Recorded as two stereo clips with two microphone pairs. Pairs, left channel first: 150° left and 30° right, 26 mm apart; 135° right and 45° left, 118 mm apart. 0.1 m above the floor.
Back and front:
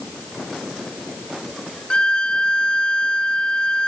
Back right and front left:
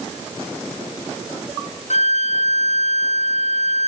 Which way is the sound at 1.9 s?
160° right.